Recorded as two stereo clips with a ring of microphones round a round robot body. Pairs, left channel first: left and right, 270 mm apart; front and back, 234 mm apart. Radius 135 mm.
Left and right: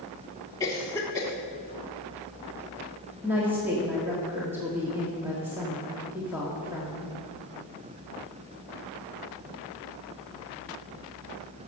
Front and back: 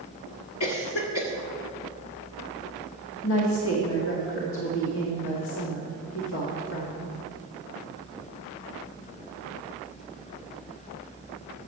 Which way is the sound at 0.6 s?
15° left.